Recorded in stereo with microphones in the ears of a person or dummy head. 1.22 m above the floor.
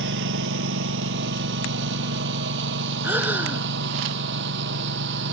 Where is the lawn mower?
65° right (ahead or behind); by 5.3 s 60° right (ahead or behind).